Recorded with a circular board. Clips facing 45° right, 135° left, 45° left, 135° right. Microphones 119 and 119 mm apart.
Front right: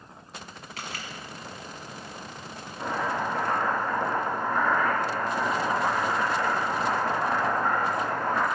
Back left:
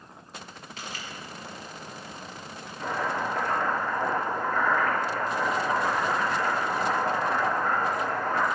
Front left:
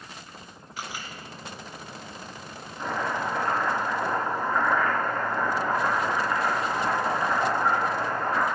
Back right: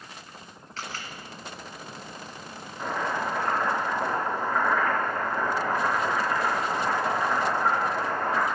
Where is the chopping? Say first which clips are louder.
Front right 1 dB, even; 60° right, 3.5 m.